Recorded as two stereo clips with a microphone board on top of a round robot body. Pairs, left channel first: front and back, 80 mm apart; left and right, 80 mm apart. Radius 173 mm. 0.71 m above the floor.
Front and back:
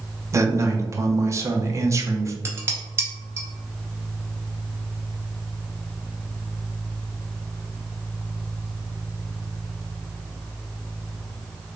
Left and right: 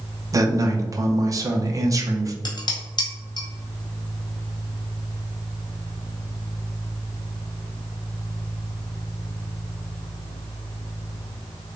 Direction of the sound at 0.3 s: 130° right.